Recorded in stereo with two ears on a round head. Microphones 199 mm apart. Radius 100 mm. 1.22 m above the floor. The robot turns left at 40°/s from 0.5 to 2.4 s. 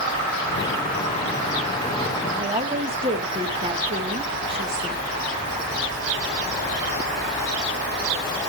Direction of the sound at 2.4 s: 25° right (ahead or behind).